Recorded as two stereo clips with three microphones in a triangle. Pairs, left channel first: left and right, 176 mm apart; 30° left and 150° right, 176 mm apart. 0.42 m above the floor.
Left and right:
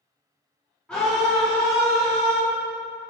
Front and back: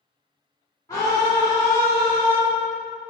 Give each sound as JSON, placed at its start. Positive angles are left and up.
{"t": 0.9, "sound": "a scream", "azimuth_deg": 20, "distance_m": 0.8}